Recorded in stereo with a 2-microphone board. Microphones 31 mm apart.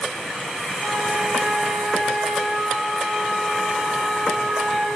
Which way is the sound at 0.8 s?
10° right (ahead or behind).